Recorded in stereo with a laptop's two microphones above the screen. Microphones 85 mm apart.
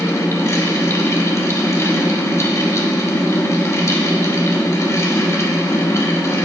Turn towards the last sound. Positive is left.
turn(degrees=35)  # may be behind; listen again after turning